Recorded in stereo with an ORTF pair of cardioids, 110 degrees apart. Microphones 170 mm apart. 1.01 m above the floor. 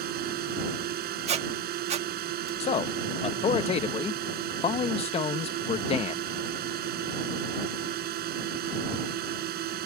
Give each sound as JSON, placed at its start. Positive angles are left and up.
{"t": 0.0, "sound": "a drone", "azimuth_deg": -70}
{"t": 1.3, "sound": "a squeak", "azimuth_deg": -40}
{"t": 2.6, "sound": "a man speaking", "azimuth_deg": 40}